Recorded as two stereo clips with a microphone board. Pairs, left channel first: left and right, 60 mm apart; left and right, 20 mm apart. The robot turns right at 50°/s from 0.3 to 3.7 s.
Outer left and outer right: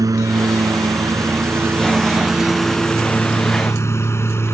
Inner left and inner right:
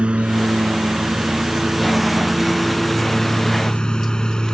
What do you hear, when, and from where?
0.0 s a lawn mower: 75° right (ahead or behind); by 4.5 s 45° left (ahead or behind)